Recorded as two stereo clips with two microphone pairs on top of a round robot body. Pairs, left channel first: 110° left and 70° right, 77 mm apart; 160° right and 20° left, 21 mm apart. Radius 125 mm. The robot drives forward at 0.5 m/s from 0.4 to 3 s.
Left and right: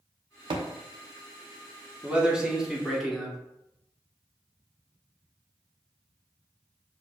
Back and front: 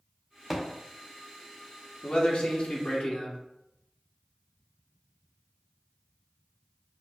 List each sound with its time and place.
0.5 s a thud: 60° right, 0.5 m; by 0.7 s 70° right, 0.5 m
2.0 s a man speaking: 150° right, 1.1 m; by 3.4 s 165° right, 1.4 m